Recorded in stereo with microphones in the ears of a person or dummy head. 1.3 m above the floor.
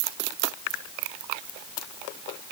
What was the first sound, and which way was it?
Only background noise.